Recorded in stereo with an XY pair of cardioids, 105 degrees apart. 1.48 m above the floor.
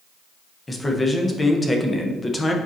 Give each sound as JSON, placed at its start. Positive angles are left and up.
{"t": 0.7, "sound": "a man speaking", "azimuth_deg": 20, "distance_m": 1.2}